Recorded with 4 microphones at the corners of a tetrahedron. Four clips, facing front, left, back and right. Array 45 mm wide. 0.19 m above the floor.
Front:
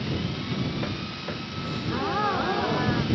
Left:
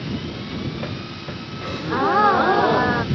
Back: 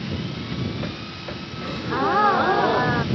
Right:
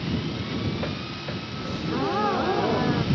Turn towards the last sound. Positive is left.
turn(degrees=120)